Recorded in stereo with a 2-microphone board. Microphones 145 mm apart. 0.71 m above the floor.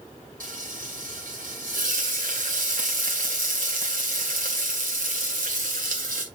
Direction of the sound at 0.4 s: 80° right.